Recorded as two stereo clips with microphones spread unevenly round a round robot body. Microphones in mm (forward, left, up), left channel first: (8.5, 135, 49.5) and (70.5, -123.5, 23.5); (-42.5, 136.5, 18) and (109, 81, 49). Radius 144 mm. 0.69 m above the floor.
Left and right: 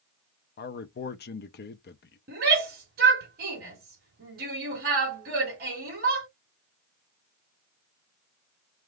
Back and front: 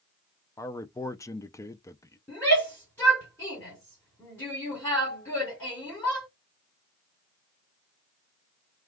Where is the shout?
125° right, 2 m.